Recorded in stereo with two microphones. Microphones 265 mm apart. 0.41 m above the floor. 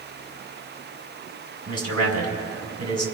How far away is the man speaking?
About 3 m.